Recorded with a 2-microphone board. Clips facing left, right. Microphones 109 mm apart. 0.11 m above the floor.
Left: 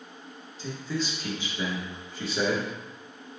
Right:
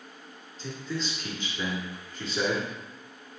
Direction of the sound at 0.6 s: 10° left (ahead or behind).